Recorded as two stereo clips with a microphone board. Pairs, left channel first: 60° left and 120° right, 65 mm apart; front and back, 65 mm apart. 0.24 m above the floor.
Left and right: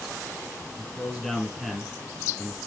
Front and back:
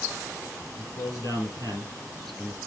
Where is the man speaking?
25° right, 5.5 m.